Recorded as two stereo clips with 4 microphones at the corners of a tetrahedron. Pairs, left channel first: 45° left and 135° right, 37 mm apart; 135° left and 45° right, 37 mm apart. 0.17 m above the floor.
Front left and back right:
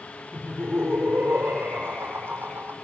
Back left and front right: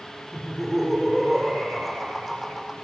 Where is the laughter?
125° right, 7 m.